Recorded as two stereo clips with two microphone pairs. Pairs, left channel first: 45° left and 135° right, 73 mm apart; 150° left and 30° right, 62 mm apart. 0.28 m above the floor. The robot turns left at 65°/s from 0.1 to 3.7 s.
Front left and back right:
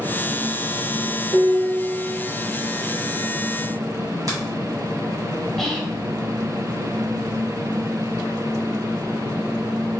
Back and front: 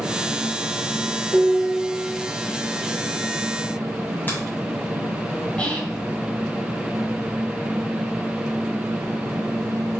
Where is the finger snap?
160° right, 1.9 m.